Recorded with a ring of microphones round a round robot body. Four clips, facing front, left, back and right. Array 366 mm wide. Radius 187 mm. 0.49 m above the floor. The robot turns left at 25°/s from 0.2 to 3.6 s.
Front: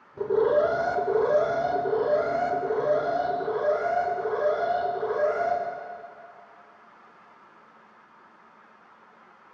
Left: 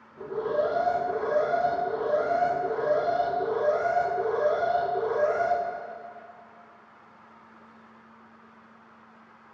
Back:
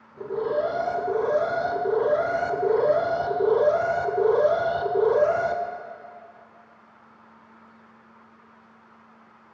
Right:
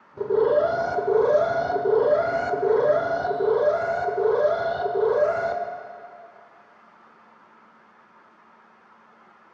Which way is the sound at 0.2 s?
60° right.